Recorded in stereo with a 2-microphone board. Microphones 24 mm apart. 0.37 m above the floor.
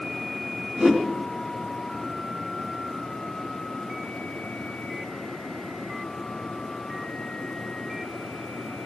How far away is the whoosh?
About 3 m.